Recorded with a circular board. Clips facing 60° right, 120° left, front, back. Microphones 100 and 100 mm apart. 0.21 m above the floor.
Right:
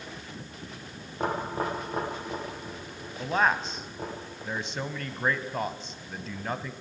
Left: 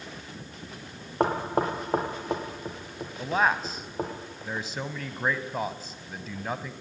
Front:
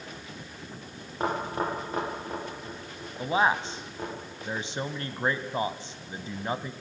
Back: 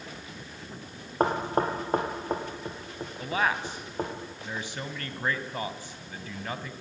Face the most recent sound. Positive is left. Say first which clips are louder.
# even, front 4 dB
turn(degrees=35)